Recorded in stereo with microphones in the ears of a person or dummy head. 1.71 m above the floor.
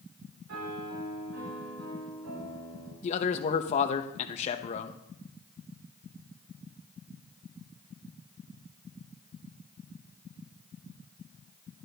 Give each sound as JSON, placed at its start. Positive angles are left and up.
{"t": 0.5, "sound": "a piano", "side_deg": -80, "distance_m": 6.5}
{"t": 3.0, "sound": "a man speaking", "side_deg": 40, "distance_m": 0.9}